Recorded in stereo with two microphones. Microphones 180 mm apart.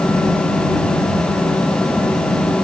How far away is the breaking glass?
No breaking glass in this recording.